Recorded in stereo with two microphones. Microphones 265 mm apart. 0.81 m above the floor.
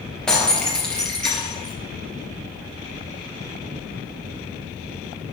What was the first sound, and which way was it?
Breaking glass, 5° left (ahead or behind).